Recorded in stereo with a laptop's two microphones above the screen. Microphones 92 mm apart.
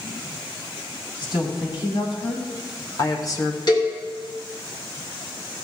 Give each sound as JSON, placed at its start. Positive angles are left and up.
{"t": 1.2, "sound": "a woman speaking", "side_deg": 60, "distance_m": 3.5}
{"t": 3.7, "sound": "a cowbell", "side_deg": 55, "distance_m": 2.0}